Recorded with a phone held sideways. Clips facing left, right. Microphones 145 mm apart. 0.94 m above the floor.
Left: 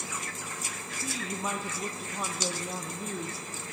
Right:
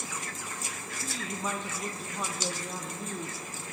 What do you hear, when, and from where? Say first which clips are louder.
1.0 s a woman speaking: left 1 dB; 5° left (ahead or behind), 0.5 m